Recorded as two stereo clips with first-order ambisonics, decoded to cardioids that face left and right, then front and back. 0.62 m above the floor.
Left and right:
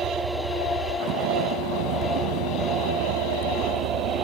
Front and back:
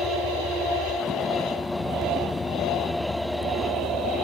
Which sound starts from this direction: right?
A vehicle, at 0.0 s.